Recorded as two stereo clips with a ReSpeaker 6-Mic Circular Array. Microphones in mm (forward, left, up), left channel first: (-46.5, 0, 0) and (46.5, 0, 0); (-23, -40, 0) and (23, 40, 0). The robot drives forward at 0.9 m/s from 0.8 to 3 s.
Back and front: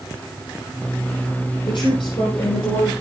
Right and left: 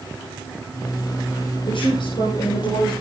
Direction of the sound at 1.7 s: 145° right.